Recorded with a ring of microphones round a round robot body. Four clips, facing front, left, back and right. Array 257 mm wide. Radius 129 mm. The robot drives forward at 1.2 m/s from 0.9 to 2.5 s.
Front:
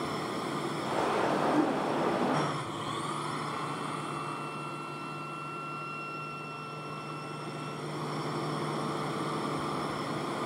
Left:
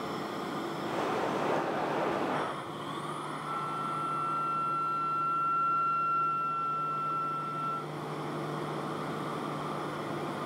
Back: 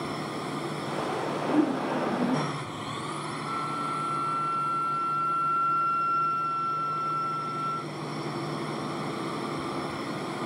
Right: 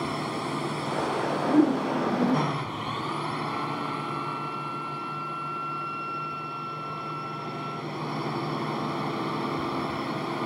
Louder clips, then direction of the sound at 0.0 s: Right 5 dB, back 1 dB; 95° right.